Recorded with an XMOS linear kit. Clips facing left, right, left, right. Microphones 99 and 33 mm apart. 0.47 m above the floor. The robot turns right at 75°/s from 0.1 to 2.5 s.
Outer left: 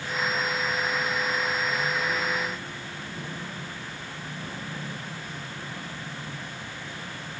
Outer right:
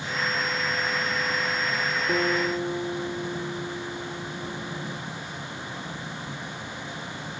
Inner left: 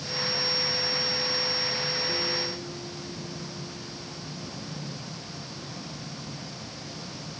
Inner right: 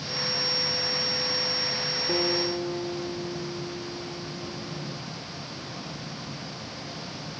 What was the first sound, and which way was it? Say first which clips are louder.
A guitar: outer right 5 dB, inner right 4 dB; 110° right.